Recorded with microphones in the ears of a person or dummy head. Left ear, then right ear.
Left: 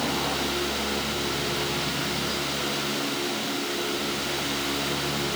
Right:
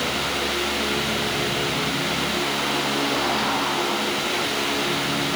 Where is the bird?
I don't hear a bird.